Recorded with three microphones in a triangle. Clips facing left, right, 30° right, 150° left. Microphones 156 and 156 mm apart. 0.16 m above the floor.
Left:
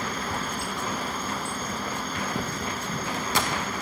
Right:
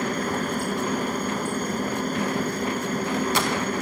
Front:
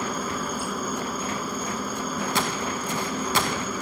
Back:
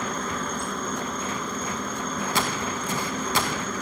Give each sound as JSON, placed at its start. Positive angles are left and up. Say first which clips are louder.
{"t": 0.0, "sound": "a helicopter", "louder": "right 6 dB, front 1 dB", "azimuth_deg": -115}